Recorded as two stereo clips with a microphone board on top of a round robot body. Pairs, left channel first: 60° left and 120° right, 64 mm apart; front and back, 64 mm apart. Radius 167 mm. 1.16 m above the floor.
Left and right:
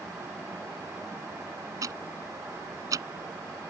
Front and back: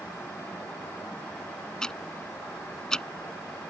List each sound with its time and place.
1.8 s ticking: 80° right